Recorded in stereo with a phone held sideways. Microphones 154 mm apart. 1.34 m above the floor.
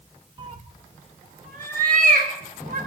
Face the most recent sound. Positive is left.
turn(degrees=-65)  # may be behind; listen again after turning